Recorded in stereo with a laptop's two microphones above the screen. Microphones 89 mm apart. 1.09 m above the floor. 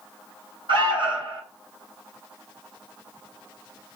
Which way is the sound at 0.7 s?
65° right (ahead or behind).